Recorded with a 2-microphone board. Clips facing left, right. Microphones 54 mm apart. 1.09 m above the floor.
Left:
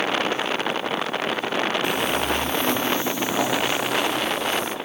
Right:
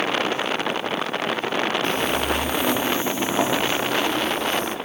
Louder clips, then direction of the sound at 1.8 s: Even; 10° left (ahead or behind).